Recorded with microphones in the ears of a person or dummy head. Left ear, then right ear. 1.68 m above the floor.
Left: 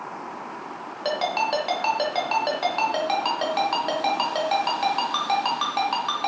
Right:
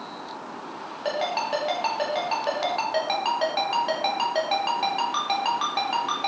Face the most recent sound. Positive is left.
turn(degrees=10)  # may be behind; listen again after turning